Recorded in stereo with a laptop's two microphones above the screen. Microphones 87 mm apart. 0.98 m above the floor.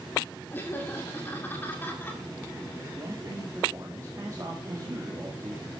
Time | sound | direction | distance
0.5 | laughter | 25° left (ahead or behind) | 2 m
3.0 | a man speaking | 40° right (ahead or behind) | 2.0 m